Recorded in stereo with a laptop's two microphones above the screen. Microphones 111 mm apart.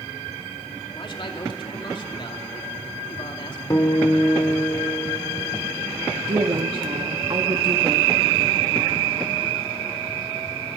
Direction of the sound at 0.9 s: 45° left (ahead or behind).